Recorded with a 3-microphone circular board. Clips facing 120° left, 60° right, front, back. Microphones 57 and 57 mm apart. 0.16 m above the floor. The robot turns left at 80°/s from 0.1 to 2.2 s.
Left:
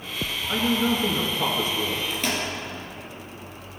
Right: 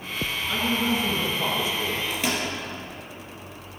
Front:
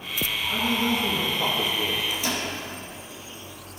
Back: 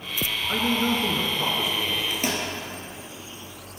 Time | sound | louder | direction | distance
0.5 | a man speaking | left 2 dB, back 1 dB | 165° right | 1.8 m
2.1 | a microwave | even, back 1 dB | 140° right | 2.5 m